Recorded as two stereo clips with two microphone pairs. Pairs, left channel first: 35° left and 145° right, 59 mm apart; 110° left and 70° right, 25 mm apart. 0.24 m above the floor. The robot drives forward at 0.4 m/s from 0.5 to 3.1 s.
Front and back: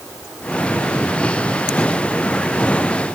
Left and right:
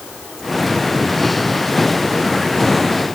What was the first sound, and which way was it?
Only background noise.